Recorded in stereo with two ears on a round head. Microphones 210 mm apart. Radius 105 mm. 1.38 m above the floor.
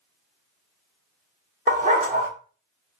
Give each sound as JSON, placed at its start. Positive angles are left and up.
{"t": 1.7, "sound": "a dog barking", "side_deg": -35, "distance_m": 1.7}